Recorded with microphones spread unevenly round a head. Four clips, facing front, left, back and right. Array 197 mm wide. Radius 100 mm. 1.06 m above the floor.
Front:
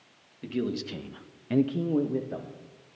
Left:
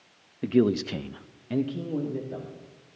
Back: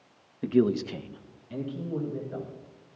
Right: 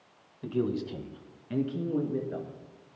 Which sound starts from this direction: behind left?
A man speaking, at 0.4 s.